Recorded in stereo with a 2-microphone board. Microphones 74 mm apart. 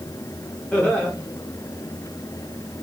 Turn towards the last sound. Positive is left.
turn(degrees=15)  # may be behind; listen again after turning